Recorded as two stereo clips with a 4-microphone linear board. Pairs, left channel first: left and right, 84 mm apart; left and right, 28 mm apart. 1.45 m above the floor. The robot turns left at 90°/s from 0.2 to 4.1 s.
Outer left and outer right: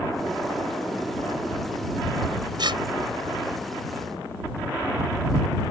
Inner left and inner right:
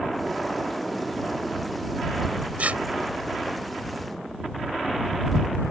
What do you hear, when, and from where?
2.6 s tearing paper: 60° right (ahead or behind); by 2.8 s 80° right